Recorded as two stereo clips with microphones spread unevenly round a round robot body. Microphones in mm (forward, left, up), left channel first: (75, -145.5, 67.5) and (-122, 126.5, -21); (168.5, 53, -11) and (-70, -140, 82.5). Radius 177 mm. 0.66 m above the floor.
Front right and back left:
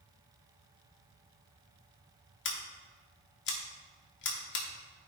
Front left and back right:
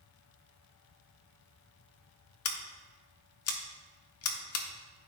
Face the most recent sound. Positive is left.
turn(degrees=10)